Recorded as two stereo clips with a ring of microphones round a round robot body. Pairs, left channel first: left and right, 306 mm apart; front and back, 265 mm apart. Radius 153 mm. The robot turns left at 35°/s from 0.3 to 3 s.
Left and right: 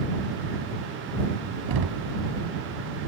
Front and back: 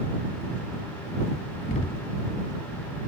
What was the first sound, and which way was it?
Knocking, 65° right.